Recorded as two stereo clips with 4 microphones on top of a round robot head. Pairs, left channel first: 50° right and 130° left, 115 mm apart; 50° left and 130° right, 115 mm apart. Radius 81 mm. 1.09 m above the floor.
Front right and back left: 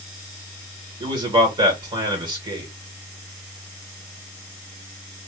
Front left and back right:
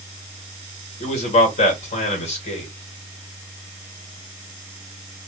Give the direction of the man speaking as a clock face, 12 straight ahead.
9 o'clock.